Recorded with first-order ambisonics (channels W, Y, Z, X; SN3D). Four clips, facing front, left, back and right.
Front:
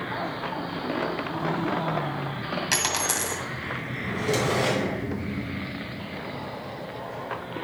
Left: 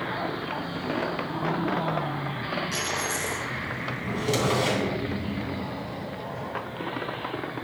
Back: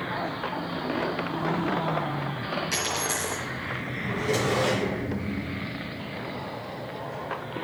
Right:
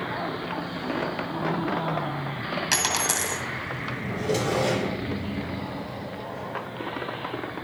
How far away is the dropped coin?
About 1.8 m.